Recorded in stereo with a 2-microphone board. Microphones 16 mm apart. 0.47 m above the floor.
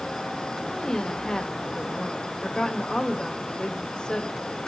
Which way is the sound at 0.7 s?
55° left (ahead or behind).